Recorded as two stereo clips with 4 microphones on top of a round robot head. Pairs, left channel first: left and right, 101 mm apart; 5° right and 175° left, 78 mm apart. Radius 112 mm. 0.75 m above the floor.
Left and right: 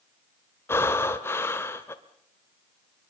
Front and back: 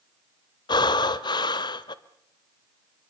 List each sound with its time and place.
0.7 s breathing: 20° left, 1.2 m